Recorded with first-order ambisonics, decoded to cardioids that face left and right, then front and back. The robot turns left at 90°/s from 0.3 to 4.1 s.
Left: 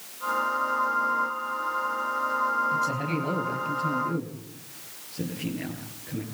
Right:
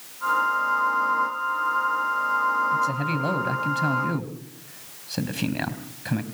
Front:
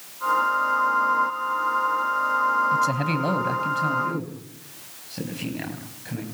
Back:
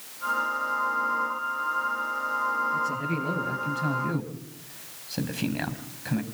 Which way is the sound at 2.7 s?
15° left.